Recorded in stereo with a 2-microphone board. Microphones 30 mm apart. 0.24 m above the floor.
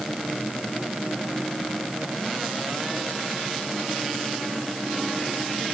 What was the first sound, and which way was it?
Only background noise.